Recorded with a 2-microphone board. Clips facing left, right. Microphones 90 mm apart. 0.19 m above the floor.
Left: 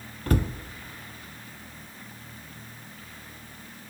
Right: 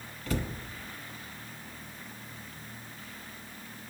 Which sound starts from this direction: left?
A cupboard door, at 0.3 s.